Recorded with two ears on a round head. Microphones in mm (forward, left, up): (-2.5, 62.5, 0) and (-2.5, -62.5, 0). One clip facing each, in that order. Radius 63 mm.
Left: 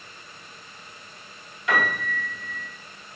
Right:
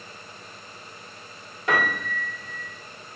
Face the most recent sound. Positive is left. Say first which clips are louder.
# even
turn(degrees=-35)  # may be behind; listen again after turning